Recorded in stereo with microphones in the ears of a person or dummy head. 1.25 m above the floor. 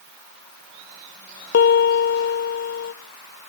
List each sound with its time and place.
1.5 s a piano: 60° left (ahead or behind), 0.5 m